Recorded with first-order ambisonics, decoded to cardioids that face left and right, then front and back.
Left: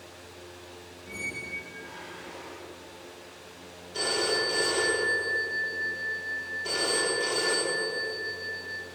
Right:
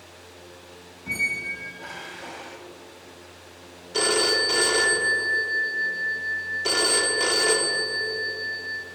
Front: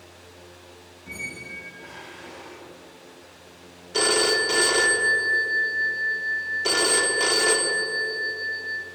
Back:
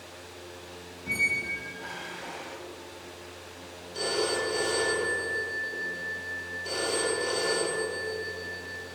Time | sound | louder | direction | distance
1.1 | a squeak | right 9 dB, back 8 dB | 115° right | 1.3 m
3.9 | a phone ringing | right 6 dB, front 8 dB | 35° right | 1.1 m